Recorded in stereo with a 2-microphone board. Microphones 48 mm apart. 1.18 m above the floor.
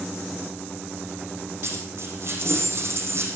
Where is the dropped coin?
55° right (ahead or behind), 5 m.